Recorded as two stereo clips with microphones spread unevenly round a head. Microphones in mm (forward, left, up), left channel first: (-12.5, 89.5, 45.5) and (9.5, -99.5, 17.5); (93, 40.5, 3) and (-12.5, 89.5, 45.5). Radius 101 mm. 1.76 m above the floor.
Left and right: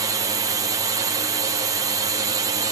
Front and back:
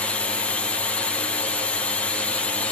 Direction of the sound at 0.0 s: 50° right.